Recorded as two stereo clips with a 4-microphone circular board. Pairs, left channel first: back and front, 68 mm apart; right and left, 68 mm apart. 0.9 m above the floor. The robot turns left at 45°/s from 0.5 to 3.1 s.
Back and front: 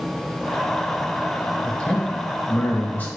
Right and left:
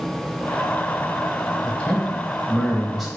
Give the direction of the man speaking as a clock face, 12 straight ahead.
4 o'clock.